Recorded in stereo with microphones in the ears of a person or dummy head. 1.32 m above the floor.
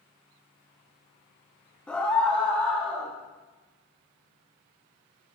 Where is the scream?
5° left (ahead or behind), 1.8 m.